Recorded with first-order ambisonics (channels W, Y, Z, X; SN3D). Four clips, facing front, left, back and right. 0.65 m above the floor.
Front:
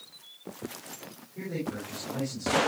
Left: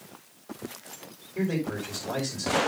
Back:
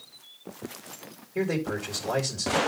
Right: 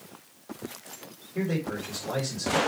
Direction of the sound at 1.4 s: 170° right.